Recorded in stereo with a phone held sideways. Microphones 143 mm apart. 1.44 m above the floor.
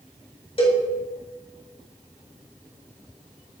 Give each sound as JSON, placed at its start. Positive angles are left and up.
{"t": 0.6, "sound": "a cowbell", "side_deg": 40, "distance_m": 1.6}